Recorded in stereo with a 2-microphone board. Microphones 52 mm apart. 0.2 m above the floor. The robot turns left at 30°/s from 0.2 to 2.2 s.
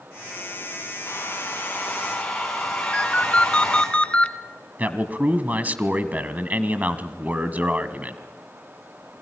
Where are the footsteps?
No footsteps in this recording.